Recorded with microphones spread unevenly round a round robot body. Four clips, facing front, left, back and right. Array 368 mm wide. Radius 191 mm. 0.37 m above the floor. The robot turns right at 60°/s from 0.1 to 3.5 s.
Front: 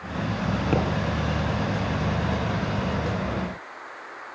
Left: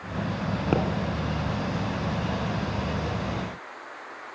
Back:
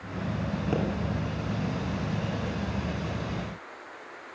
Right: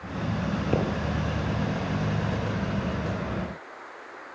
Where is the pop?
70° left, 3 m; by 0.8 s 80° left, 3 m.